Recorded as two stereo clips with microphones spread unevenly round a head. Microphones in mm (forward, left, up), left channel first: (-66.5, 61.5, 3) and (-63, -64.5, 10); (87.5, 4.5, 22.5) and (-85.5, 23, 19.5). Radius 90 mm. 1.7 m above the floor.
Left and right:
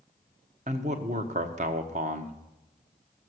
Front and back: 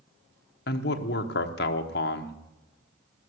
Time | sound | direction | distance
0.7 | a man speaking | 40° right | 1.0 m